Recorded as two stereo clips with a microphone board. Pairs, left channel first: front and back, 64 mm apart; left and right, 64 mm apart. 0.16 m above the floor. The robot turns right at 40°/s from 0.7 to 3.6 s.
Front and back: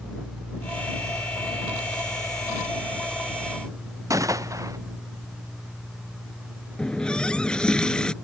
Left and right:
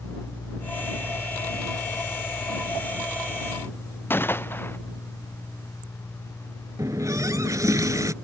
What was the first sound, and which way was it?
A gunshot, 145° left.